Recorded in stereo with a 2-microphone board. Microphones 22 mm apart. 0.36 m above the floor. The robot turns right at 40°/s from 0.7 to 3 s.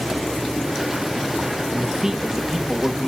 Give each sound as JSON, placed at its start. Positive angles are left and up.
{"t": 1.7, "sound": "a man speaking", "azimuth_deg": -45, "distance_m": 1.1}